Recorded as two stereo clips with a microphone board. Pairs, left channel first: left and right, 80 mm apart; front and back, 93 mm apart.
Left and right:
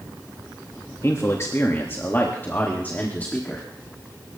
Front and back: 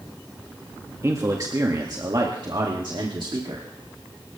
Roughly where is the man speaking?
Behind left.